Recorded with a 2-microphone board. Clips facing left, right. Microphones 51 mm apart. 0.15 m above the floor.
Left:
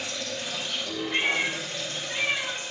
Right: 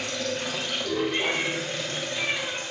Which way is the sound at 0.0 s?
60° right (ahead or behind).